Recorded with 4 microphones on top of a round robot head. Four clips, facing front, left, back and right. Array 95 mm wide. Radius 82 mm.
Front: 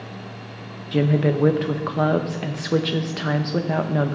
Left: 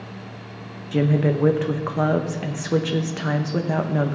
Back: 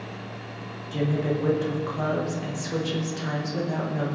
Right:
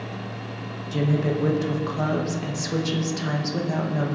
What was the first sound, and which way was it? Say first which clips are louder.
A woman speaking: left 4 dB, front 6 dB; 40° left.